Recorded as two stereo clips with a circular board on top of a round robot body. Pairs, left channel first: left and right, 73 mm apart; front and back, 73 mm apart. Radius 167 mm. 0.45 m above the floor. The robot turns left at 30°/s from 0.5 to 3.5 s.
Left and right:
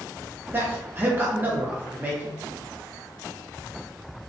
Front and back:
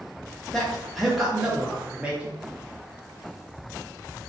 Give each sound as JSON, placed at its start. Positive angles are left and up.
{"t": 0.5, "sound": "a man speaking", "azimuth_deg": -80, "distance_m": 0.8}